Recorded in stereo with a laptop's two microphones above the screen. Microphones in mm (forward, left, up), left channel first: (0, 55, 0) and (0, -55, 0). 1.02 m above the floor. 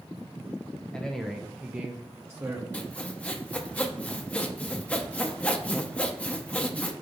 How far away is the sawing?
About 0.6 m.